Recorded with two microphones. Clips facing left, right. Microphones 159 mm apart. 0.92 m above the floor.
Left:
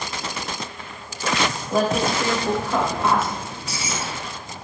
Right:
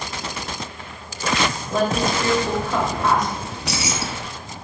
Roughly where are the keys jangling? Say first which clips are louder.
Right 4 dB; right.